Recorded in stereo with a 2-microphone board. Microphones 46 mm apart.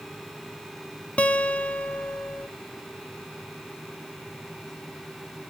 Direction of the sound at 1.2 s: 25° left (ahead or behind).